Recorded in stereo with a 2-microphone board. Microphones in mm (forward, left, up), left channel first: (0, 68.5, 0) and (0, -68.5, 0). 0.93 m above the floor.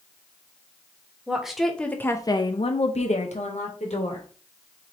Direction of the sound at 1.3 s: 5° right (ahead or behind).